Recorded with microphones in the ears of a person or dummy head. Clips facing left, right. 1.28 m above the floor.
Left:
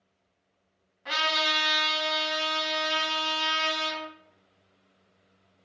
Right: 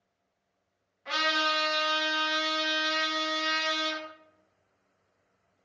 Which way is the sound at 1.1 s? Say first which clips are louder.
Even; 60° left (ahead or behind).